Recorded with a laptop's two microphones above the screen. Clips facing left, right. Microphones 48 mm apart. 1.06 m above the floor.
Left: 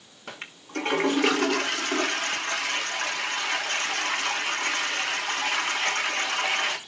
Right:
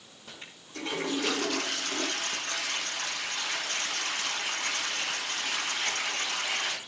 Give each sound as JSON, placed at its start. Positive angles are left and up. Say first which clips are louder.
{"t": 0.3, "sound": "a toilet flushing", "louder": "left 9 dB", "side_deg": 60, "distance_m": 1.3}